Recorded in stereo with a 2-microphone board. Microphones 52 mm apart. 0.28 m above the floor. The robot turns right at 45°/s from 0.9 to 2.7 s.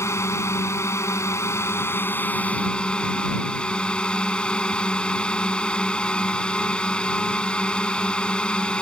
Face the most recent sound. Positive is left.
turn(degrees=160)